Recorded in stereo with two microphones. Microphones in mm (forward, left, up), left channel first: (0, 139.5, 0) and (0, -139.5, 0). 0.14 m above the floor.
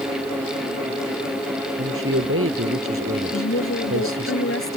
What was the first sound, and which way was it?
A man speaking, 50° right (ahead or behind).